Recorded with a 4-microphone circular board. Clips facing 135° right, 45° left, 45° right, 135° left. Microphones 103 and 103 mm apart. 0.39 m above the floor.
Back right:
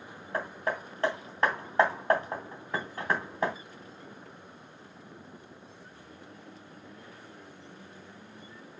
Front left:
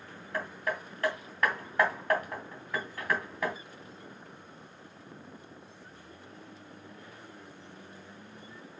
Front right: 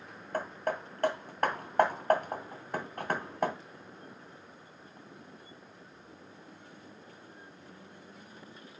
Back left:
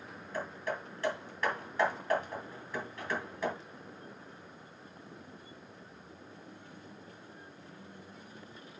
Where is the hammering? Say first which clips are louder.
Back right 2 dB, front right 4 dB; 75° right, 2.5 m.